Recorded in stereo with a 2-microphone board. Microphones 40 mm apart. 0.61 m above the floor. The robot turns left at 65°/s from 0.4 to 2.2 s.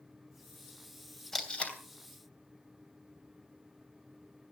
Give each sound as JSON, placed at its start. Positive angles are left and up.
{"t": 1.3, "sound": "tape being pulled", "side_deg": 10, "distance_m": 3.0}